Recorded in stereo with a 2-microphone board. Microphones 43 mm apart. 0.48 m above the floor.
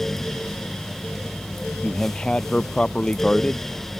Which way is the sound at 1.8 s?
20° left (ahead or behind).